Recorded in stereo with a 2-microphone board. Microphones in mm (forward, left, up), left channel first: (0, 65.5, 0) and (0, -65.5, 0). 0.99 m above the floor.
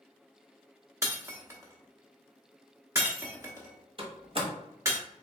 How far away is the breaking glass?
About 1.0 m.